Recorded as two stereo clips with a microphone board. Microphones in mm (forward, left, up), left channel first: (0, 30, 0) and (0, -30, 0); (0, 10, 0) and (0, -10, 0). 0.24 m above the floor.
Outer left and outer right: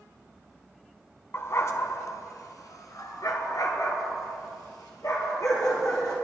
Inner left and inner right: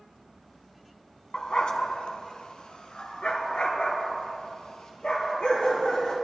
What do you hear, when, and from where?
1.3 s a dog barking: 45° left (ahead or behind), 0.8 m; by 6.1 s 70° left (ahead or behind), 3 m